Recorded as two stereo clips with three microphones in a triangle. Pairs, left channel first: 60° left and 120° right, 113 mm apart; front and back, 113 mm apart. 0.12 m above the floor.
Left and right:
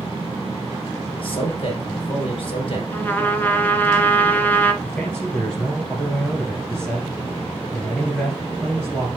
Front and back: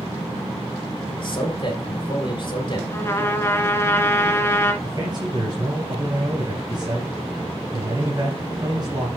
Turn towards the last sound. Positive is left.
turn(degrees=140)